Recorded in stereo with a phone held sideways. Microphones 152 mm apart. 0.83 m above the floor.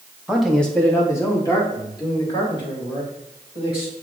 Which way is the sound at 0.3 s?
5° right (ahead or behind).